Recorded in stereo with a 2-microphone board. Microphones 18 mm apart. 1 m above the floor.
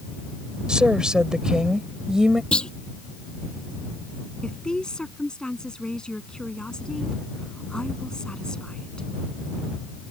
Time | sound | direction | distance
0.7 | a woman speaking | 55° right (ahead or behind) | ?
2.5 | a clunk | 65° left (ahead or behind) | ?
4.4 | a woman speaking | 50° left (ahead or behind) | ?